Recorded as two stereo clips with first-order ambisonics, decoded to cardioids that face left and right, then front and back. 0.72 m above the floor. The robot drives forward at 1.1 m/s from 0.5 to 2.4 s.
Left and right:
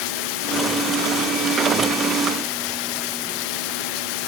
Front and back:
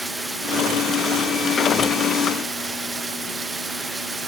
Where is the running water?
95° left; by 4.3 s 100° left.